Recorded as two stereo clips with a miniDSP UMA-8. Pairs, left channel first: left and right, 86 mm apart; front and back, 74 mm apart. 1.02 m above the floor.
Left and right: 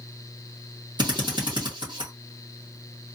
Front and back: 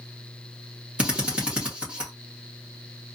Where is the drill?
105° right, 1.8 m.